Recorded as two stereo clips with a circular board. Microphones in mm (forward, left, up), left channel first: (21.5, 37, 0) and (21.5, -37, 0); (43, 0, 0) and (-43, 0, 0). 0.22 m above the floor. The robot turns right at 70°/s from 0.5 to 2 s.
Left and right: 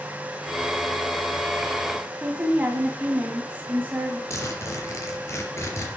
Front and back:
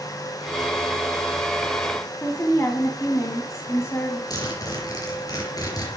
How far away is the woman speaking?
About 1.4 m.